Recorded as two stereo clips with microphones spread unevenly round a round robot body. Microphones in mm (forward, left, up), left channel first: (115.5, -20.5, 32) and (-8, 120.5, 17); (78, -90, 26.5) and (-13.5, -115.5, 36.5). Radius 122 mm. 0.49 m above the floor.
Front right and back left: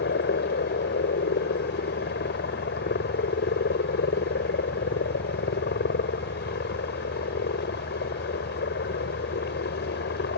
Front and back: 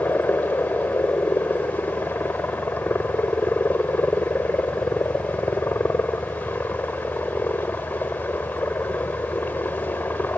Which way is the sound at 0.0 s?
50° right.